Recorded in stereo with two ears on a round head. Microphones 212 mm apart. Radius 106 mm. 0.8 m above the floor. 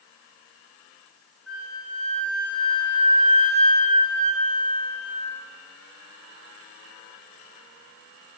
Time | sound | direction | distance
1.5 | a flute | 5° left (ahead or behind) | 1.0 m